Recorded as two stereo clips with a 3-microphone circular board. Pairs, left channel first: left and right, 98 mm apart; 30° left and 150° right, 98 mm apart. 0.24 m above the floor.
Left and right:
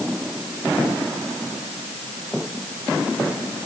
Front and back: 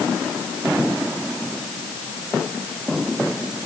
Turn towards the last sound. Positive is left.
No sound to turn to.